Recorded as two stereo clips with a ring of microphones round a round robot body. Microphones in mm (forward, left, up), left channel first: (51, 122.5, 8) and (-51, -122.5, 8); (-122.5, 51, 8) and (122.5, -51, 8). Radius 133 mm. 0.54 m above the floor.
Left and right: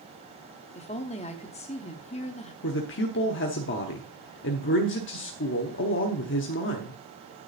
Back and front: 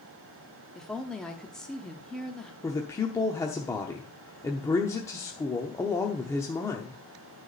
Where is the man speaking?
85° left, 0.9 m.